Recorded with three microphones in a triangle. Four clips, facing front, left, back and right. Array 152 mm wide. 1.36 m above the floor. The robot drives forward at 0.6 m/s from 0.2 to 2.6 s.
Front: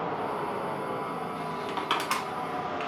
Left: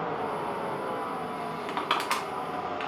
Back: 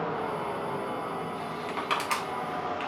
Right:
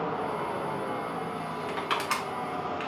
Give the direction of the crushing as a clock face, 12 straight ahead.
9 o'clock.